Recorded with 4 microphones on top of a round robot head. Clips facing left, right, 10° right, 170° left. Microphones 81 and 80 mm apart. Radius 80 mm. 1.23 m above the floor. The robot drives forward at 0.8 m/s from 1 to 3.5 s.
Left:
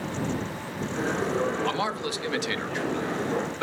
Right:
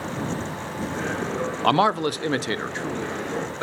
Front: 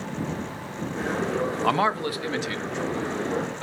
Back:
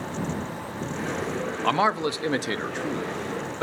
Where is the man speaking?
90° right, 0.6 m; by 3.6 s 160° right, 1.6 m.